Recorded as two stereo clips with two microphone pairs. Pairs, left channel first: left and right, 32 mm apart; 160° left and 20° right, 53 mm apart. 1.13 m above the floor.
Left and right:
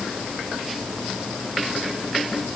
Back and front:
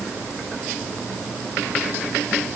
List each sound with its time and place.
Only background noise.